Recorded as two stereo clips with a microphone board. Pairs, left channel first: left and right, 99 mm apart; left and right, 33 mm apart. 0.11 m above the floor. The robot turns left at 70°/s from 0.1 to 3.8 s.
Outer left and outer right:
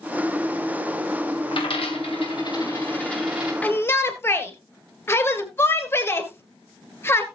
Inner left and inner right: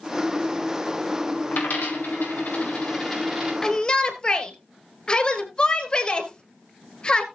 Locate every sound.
1.5 s a dropped coin: 55° left (ahead or behind), 7 m; by 3.5 s 15° right (ahead or behind), 7 m
3.6 s a shout: 15° left (ahead or behind), 2.0 m; by 7.2 s 25° left (ahead or behind), 2.0 m